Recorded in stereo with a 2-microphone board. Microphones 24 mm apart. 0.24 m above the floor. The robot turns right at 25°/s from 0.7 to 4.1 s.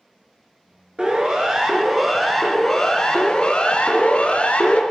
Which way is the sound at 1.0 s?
45° right (ahead or behind).